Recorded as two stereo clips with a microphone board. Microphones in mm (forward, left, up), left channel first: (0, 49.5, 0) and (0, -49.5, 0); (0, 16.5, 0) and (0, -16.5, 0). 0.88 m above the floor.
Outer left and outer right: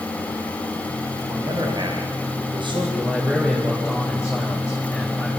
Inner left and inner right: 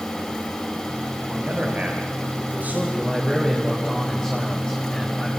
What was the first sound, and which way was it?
A man speaking, 45° right (ahead or behind).